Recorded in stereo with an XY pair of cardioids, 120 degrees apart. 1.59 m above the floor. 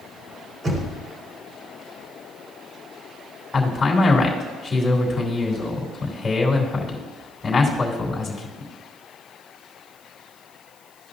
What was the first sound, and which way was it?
Knocking, 40° right.